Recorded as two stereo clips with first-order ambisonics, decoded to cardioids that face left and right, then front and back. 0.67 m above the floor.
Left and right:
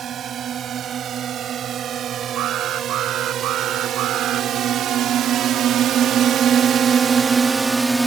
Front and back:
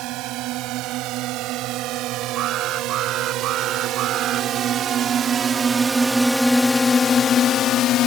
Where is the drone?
150° right; by 8.1 s 10° right.